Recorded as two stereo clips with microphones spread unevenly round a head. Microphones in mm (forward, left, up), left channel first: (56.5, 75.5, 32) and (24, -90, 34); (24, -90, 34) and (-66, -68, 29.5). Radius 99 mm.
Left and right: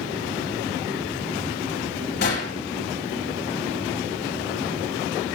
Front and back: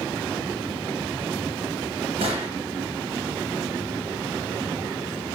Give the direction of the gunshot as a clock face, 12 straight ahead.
8 o'clock.